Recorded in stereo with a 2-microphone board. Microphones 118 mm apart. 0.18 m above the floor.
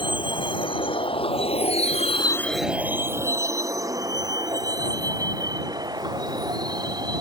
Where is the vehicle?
45° left (ahead or behind); by 7.2 s 35° right (ahead or behind).